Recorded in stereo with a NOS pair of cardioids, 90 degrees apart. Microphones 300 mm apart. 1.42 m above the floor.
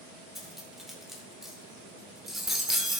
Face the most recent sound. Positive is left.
turn(degrees=0)